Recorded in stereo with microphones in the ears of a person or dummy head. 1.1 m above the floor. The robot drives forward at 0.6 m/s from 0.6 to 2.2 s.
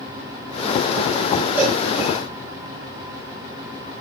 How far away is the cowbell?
About 5.5 m.